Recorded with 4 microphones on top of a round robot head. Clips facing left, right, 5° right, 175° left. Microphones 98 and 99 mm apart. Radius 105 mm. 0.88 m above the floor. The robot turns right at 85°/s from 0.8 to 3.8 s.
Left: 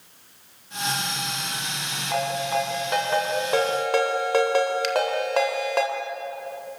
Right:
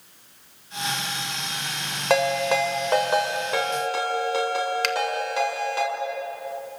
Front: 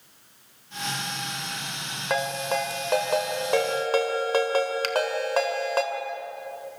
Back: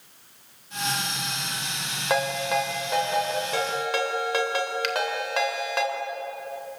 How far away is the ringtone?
About 3 m.